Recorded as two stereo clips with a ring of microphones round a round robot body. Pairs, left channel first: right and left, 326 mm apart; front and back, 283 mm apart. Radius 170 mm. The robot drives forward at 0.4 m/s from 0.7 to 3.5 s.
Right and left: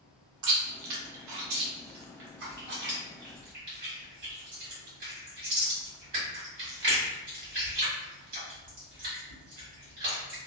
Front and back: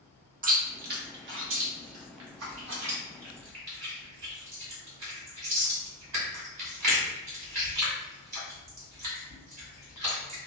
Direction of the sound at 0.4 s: 115° left.